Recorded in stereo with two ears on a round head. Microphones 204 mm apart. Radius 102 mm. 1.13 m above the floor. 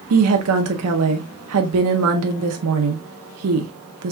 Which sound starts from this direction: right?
A woman speaking, at 0.1 s.